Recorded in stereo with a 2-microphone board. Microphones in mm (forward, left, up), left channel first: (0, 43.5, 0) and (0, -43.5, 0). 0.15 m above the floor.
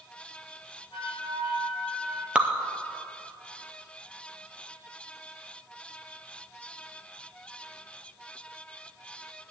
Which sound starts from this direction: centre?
Dripping, at 2.4 s.